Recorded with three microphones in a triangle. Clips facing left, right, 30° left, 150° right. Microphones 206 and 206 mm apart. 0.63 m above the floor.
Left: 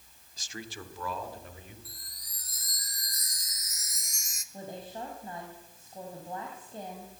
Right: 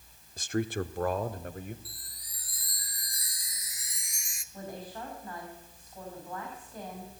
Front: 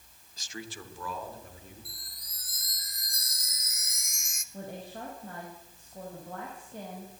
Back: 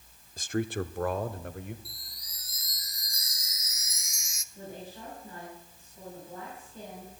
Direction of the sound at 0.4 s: 120° right.